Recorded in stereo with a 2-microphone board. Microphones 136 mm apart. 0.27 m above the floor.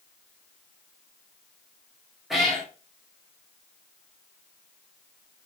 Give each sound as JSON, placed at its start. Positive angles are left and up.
{"t": 2.3, "sound": "a cat meowing", "side_deg": 0, "distance_m": 2.0}